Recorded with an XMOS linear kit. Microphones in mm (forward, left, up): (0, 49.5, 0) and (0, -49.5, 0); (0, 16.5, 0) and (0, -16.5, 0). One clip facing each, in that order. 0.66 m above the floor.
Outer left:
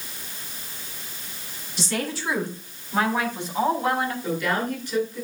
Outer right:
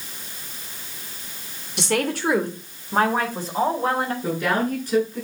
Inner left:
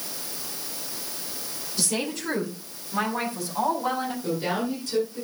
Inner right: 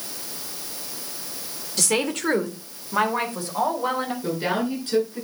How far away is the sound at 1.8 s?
About 2.5 m.